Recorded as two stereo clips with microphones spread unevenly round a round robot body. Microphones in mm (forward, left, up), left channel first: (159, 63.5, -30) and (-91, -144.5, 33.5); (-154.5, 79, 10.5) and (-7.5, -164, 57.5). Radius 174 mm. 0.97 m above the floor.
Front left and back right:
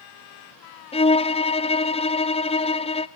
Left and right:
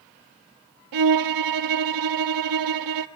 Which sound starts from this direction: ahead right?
A violin, at 0.9 s.